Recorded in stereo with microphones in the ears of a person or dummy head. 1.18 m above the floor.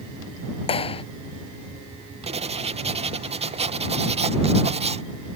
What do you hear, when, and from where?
0.7 s a clap: 35° left (ahead or behind)
2.3 s writing: 30° right (ahead or behind)